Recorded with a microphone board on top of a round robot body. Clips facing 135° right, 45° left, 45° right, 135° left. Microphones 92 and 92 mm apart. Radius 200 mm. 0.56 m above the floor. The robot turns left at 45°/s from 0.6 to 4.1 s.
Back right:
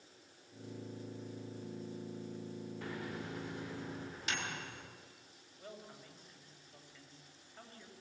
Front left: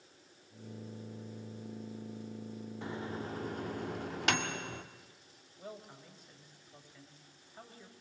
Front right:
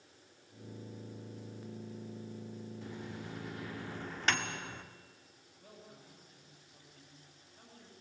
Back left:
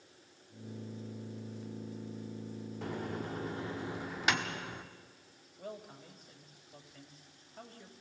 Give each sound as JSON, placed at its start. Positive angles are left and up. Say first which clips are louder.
{"t": 2.8, "sound": "a microwave", "louder": "front left 5 dB, back left 10 dB", "azimuth_deg": 115, "distance_m": 1.7}
{"t": 5.6, "sound": "a man speaking", "louder": "front left 3 dB, back left 10 dB", "azimuth_deg": 120, "distance_m": 3.5}